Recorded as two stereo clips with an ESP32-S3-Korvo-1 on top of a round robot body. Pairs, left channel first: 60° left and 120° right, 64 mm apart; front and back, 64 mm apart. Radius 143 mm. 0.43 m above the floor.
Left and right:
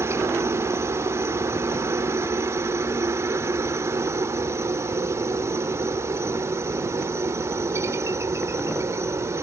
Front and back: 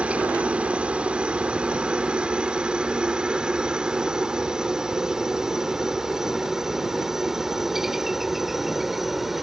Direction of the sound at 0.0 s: 120° right.